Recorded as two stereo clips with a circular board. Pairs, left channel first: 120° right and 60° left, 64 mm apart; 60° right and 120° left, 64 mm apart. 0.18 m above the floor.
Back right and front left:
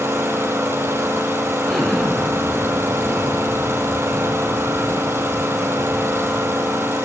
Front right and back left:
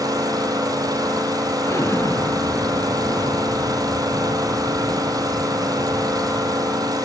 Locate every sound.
0.0 s an engine running: 110° left, 6 m
1.6 s an explosion: 40° right, 0.9 m